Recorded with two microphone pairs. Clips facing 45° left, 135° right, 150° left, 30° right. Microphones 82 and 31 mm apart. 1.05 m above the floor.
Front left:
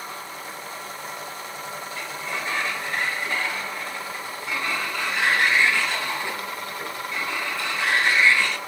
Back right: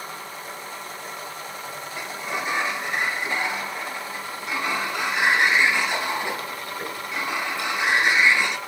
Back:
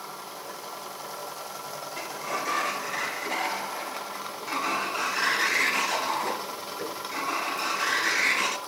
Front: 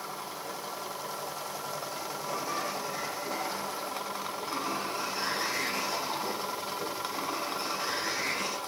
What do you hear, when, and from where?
2.0 s a sliding door: 160° left, 0.8 m